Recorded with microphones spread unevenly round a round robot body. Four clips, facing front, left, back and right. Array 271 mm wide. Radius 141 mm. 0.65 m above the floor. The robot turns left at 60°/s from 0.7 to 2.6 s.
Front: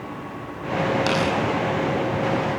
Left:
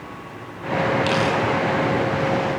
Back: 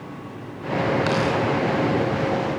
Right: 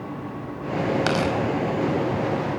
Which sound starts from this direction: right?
Tearing paper, at 1.1 s.